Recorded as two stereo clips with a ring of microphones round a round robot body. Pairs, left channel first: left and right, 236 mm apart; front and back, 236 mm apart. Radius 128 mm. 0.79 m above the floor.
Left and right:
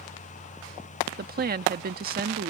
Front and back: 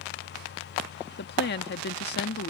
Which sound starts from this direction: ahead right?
A woman speaking, at 1.2 s.